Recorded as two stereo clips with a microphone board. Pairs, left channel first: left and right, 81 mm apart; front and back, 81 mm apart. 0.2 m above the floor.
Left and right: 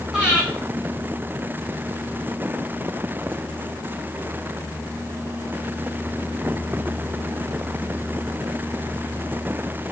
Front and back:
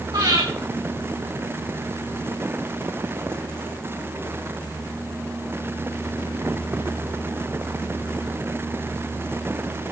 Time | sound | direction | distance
0.1 | breathing | 170° right | 9 m